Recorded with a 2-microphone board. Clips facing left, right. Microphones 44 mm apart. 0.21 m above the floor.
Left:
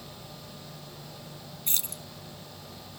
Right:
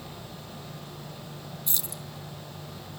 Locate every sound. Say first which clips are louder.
1.7 s keys jangling: left 2 dB; 50° left (ahead or behind), 1.6 m